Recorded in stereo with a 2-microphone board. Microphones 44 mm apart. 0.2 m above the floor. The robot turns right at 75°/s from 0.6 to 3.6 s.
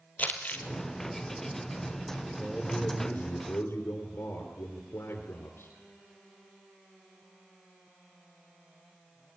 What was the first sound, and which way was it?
Crumpling, 40° left (ahead or behind).